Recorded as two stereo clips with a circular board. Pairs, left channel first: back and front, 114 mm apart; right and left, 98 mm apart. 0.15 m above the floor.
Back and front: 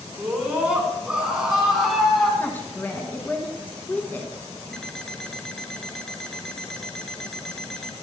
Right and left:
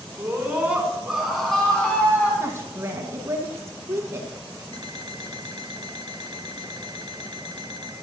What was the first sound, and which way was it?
A scream, 60° left.